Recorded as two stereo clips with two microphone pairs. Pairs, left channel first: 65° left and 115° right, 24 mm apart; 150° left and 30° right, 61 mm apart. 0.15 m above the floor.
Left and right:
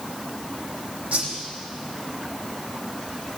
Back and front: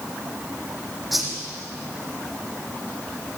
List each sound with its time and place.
1.1 s a whoosh: 120° right, 7 m